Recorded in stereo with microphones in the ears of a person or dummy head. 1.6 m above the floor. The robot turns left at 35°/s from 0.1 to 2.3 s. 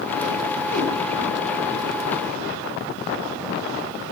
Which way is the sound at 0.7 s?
55° left (ahead or behind).